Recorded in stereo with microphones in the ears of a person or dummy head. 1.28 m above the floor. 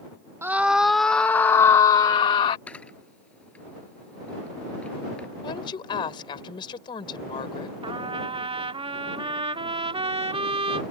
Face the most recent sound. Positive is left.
turn(degrees=-25)  # may be behind; listen again after turning